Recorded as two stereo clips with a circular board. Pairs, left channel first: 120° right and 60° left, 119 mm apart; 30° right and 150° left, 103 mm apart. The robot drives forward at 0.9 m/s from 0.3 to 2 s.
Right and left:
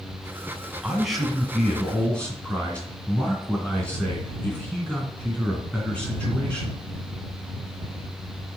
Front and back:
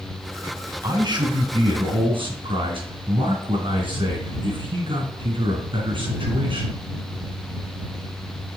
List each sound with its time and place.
0.8 s a man speaking: 145° left, 1.8 m; by 6.8 s 160° left, 2.5 m